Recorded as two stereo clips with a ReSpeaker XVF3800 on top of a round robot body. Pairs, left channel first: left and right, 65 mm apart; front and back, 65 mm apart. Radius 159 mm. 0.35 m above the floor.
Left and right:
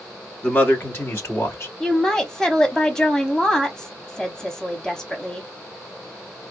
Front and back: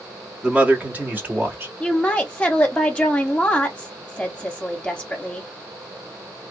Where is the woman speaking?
30° left, 1.3 m.